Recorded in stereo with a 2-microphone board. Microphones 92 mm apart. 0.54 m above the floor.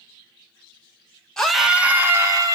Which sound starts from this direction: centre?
A scream, at 1.4 s.